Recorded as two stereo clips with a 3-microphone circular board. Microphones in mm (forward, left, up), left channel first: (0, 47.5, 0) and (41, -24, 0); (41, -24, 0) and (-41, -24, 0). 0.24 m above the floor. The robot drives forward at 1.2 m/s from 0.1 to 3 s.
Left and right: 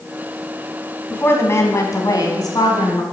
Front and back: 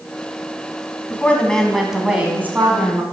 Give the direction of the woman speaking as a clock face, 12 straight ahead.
10 o'clock.